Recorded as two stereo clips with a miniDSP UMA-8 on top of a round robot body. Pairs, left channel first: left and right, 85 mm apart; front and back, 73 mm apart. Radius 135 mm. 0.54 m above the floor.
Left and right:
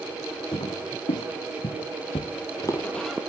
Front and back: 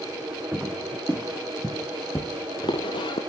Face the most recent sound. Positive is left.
turn(degrees=-5)